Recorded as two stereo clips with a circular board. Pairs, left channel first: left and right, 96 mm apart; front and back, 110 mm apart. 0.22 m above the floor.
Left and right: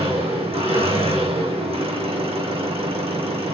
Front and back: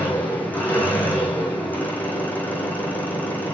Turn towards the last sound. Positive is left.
turn(degrees=-75)